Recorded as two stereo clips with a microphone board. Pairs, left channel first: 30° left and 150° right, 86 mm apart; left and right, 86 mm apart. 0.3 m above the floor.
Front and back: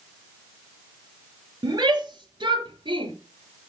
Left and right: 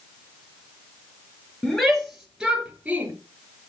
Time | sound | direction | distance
1.6 | a shout | 175° left | 5 m